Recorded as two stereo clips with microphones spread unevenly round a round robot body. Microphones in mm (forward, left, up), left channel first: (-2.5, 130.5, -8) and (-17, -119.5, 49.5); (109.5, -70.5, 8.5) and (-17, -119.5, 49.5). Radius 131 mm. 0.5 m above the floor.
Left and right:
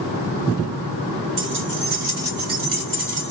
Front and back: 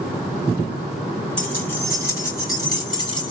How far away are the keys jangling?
About 2.5 m.